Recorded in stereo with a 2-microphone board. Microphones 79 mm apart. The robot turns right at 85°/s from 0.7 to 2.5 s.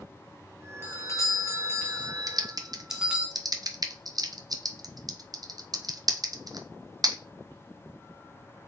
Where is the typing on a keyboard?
50° right (ahead or behind), 0.5 m; by 7.2 s 55° right (ahead or behind), 0.5 m.